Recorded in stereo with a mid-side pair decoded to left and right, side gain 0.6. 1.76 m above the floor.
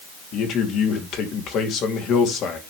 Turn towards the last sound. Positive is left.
turn(degrees=60)